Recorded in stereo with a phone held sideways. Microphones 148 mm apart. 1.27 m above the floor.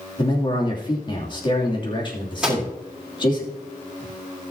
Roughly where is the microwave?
Centre.